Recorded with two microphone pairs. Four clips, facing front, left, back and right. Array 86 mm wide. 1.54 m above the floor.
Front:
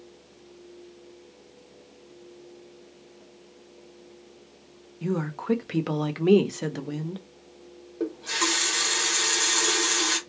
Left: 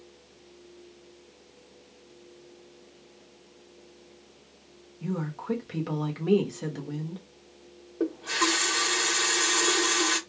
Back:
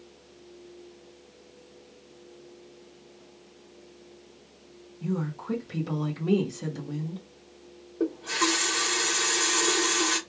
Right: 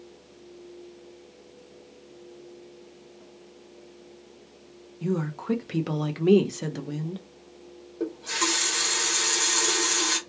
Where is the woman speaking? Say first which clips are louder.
Right 4 dB, front 3 dB; 10° right, 0.6 m.